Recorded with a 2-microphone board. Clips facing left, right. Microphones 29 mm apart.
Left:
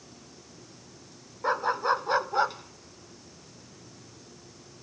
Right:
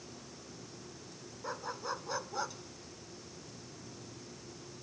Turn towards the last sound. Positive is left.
turn(degrees=25)  # may be behind; listen again after turning